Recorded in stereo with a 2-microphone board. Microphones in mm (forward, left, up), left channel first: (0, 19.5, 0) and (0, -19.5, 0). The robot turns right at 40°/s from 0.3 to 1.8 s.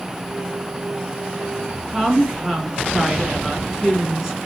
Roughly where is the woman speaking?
Centre.